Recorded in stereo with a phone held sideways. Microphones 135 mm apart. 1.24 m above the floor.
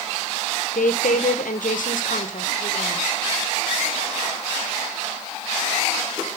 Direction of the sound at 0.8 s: 75° left (ahead or behind).